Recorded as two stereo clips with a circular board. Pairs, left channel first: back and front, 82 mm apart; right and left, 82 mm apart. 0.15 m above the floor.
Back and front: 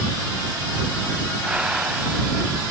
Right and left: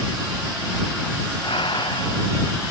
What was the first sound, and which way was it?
Breathing, 75° right.